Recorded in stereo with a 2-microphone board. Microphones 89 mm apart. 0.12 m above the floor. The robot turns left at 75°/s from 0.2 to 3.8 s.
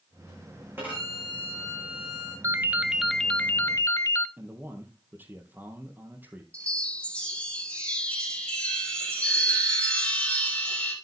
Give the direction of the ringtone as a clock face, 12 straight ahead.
5 o'clock.